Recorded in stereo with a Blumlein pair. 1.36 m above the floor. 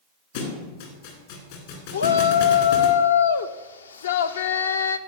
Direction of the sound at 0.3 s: 55° left.